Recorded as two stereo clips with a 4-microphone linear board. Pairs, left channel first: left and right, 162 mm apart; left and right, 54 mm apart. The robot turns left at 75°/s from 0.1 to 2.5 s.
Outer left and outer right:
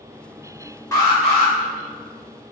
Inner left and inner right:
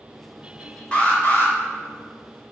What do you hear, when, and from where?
0.9 s an alarm: 155° left, 1.8 m; by 1.5 s 110° left, 1.8 m